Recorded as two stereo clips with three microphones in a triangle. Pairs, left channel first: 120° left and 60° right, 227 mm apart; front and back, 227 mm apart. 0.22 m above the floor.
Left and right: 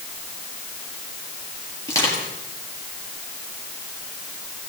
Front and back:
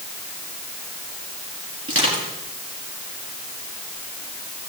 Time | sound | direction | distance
1.9 | crushing | 165° right | 4.5 m